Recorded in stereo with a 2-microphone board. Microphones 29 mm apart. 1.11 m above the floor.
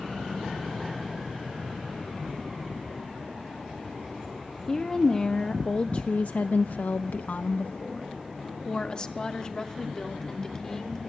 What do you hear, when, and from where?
4.7 s a woman speaking: 20° left (ahead or behind), 1.5 m